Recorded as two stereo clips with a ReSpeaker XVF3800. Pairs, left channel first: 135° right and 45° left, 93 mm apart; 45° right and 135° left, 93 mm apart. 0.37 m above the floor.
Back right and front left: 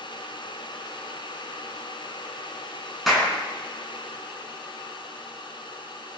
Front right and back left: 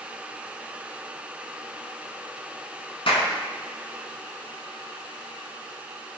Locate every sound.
3.1 s a clap: 45° right, 4 m